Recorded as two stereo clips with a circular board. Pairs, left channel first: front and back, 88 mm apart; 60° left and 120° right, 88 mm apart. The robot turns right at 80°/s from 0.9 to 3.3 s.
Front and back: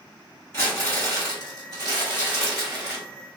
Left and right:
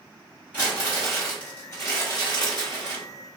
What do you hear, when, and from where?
0.5 s crumpling: 50° right, 1.8 m; by 3.0 s 120° left, 1.8 m